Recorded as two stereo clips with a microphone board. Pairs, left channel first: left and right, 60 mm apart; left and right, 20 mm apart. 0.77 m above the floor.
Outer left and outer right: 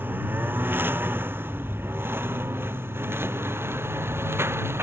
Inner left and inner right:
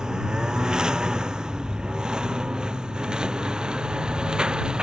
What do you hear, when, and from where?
0.0 s a lawn mower: 30° right (ahead or behind); by 4.8 s 40° right (ahead or behind)